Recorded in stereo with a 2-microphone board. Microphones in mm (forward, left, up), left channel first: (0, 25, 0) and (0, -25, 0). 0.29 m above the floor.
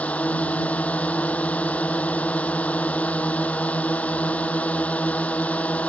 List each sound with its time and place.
0.0 s a drone: 30° left (ahead or behind)